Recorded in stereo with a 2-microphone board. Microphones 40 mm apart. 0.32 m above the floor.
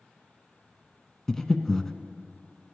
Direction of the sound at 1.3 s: 10° left (ahead or behind).